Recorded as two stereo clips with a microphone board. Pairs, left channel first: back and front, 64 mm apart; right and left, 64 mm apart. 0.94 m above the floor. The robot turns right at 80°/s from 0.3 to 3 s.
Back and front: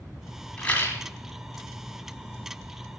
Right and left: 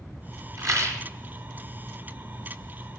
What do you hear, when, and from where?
0.6 s a rattle: 105° left, 1.4 m; by 1.0 s 140° left, 1.4 m